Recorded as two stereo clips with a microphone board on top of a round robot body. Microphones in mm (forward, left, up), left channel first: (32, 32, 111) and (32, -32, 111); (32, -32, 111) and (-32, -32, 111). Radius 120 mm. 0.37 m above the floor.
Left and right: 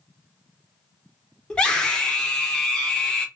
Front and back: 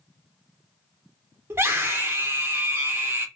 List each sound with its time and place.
1.5 s a scream: 160° left, 1.5 m